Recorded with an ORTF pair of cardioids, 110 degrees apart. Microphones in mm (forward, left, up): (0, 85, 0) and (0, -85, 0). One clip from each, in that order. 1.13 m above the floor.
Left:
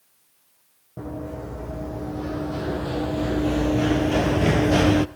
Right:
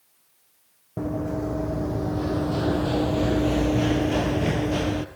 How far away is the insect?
No insect in this recording.